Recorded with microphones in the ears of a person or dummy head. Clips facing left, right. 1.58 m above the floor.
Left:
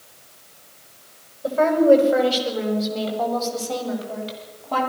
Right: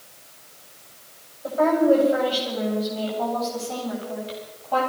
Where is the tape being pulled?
No tape being pulled in this recording.